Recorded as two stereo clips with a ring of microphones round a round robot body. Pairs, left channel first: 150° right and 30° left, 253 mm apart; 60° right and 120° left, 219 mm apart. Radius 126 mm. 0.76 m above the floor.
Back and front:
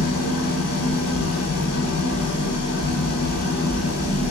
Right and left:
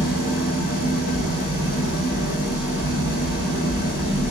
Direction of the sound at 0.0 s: 120° right.